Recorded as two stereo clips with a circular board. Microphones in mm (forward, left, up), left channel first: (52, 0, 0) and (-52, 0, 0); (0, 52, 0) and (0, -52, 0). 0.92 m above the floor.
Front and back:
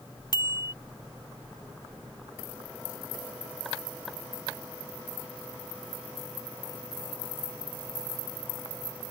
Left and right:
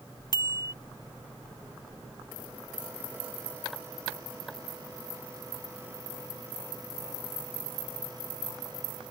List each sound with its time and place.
0.3 s a bicycle bell: 45° left